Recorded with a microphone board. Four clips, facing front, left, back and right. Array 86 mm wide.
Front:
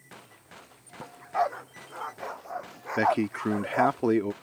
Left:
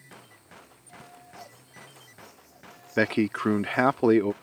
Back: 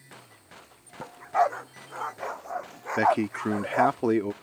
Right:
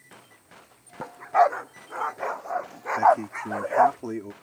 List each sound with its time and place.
1.0 s a dog barking: 100° right; by 4.0 s 95° right
3.0 s a man speaking: 95° left